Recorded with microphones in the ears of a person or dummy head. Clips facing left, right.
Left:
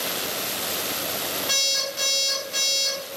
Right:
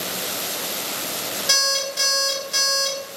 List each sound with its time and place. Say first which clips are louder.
1.5 s an alarm clock: right 4 dB; 25° right (ahead or behind), 1.1 m